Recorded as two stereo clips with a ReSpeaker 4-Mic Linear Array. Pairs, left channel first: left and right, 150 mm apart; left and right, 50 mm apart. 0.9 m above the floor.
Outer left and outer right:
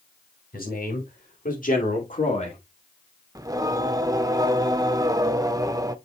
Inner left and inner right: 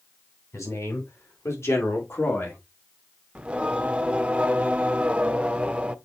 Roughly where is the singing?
Right.